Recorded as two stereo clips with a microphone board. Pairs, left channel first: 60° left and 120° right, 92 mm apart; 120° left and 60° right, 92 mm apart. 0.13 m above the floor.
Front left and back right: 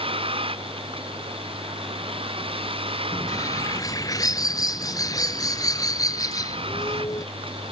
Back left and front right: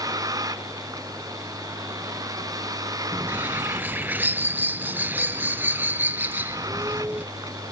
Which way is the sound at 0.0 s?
110° right.